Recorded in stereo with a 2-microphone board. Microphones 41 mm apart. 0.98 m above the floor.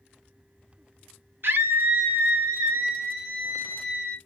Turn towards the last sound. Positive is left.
turn(degrees=-50)  # may be behind; listen again after turning